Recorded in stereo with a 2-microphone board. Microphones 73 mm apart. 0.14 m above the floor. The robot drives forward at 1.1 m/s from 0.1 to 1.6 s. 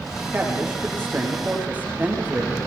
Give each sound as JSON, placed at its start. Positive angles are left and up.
{"t": 0.3, "sound": "a man speaking", "side_deg": -25, "distance_m": 8.0}